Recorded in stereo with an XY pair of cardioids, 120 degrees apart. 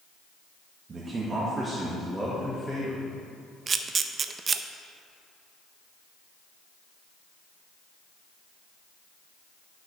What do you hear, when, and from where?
0.9 s a man speaking: 30° right, 1.6 m; by 3.0 s 10° left, 1.8 m
3.7 s a camera shutter: 35° right, 0.5 m